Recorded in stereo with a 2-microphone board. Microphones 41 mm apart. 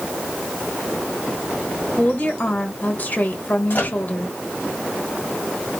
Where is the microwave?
55° left (ahead or behind), 1.6 m.